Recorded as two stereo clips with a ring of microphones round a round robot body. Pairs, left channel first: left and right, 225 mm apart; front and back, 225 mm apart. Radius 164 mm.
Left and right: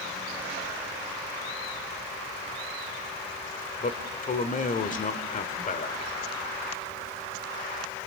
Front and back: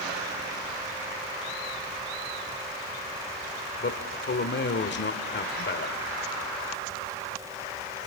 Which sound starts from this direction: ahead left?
A man speaking, at 3.8 s.